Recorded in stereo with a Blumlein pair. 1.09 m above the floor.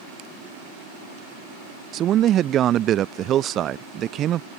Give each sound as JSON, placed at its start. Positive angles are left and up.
{"t": 1.9, "sound": "a man speaking", "azimuth_deg": -30}